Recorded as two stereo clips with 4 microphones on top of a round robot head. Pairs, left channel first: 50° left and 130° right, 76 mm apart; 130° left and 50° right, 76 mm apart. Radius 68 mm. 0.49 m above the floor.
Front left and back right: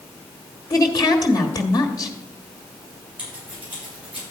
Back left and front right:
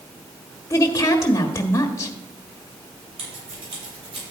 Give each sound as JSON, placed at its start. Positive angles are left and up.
{"t": 0.7, "sound": "a woman speaking", "azimuth_deg": 80, "distance_m": 1.4}
{"t": 3.2, "sound": "scissors", "azimuth_deg": -60, "distance_m": 6.5}